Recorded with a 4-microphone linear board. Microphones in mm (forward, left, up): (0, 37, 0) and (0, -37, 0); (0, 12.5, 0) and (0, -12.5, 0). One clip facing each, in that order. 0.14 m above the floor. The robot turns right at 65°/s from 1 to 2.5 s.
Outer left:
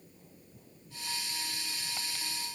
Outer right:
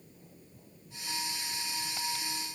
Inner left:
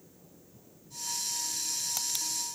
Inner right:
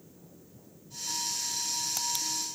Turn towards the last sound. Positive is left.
No sound to turn to.